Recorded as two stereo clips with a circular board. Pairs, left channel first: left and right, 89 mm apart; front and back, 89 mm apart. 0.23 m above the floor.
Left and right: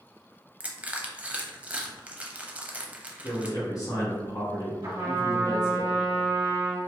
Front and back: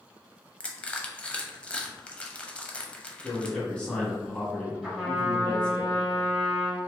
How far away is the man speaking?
About 1.6 m.